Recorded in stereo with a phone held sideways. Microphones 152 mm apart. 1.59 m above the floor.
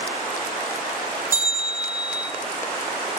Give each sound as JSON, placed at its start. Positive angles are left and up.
{"t": 1.3, "sound": "a bell", "side_deg": -15, "distance_m": 3.0}